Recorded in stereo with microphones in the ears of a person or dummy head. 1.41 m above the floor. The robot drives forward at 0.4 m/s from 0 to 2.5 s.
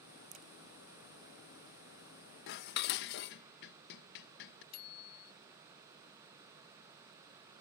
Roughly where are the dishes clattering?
Left.